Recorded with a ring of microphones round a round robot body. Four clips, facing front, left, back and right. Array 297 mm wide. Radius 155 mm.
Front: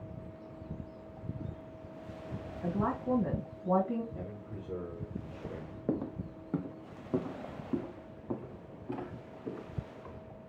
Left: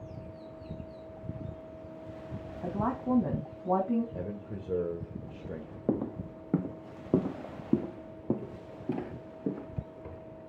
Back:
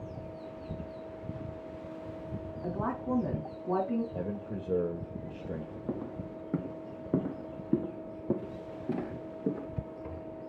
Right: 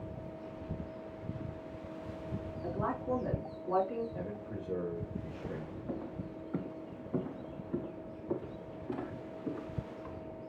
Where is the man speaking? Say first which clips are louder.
Left 2 dB, back 7 dB; 145° left, 1.8 m.